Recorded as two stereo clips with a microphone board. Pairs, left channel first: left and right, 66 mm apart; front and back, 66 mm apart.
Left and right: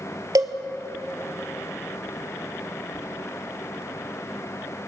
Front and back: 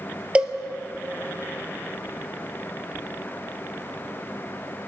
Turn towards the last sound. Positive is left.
turn(degrees=-110)